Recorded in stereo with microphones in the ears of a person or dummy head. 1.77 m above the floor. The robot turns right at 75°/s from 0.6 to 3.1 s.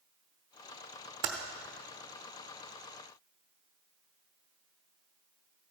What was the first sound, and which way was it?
Typing on a keyboard, 20° right (ahead or behind).